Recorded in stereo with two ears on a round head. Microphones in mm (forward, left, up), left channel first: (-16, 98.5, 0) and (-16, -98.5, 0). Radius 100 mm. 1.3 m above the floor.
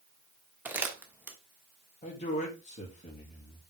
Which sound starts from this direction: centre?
Crumpling, at 0.7 s.